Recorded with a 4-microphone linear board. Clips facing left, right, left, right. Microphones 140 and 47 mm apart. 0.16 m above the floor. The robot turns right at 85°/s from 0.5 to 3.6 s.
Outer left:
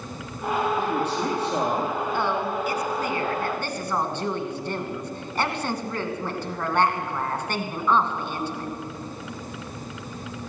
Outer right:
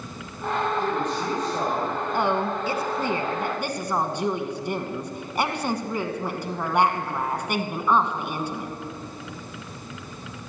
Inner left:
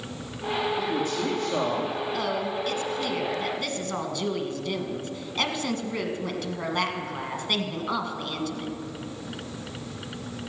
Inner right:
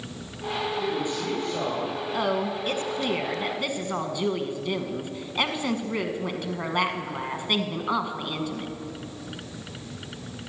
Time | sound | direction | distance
0.8 | a man speaking | 10° left | 4.5 m
2.1 | a woman speaking | 15° right (ahead or behind) | 1.1 m